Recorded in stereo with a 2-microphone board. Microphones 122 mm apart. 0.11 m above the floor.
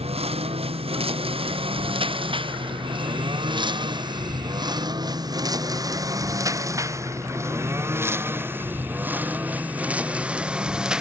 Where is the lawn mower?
55° right (ahead or behind); by 11.0 s 5° right (ahead or behind).